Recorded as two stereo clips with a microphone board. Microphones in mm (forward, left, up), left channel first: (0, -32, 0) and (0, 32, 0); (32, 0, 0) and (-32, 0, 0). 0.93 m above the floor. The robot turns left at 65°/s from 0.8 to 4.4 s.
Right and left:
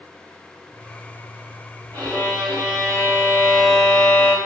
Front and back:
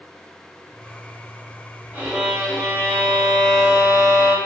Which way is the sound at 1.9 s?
115° left.